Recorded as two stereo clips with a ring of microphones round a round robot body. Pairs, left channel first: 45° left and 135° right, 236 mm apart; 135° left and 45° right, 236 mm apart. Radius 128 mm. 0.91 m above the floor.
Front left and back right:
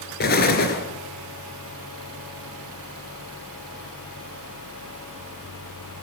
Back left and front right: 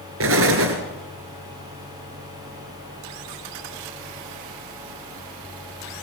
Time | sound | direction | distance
0.2 | an explosion | 10° right | 3.5 m